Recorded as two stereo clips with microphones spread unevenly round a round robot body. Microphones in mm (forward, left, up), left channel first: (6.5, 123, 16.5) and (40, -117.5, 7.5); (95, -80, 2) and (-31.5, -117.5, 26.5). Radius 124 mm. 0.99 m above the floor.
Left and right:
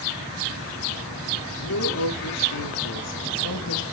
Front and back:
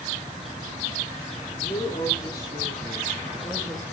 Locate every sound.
1.6 s a woman speaking: 80° left, 3 m; by 3.8 s 105° left, 1.6 m